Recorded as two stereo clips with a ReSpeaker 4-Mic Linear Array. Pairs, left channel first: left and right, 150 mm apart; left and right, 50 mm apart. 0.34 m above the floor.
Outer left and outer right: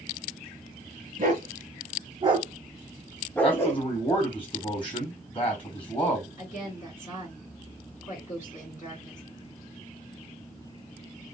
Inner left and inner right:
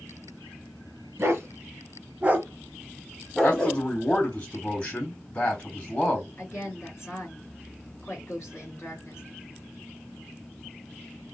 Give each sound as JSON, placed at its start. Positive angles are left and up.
{"t": 1.2, "sound": "a dog barking", "side_deg": -60, "distance_m": 1.2}
{"t": 3.4, "sound": "a man speaking", "side_deg": 35, "distance_m": 2.0}
{"t": 6.4, "sound": "a woman speaking", "side_deg": 55, "distance_m": 2.0}